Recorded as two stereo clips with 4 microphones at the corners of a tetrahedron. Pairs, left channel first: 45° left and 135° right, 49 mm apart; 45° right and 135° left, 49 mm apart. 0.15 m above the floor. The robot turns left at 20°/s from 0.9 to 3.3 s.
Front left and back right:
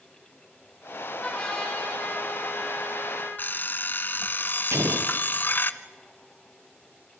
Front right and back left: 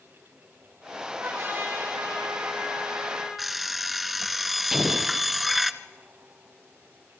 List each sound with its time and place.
1.2 s a trumpet: 120° left, 7 m; by 3.3 s 75° left, 7 m
3.4 s an alarm clock: 50° left, 0.8 m
4.7 s an explosion: 145° right, 2 m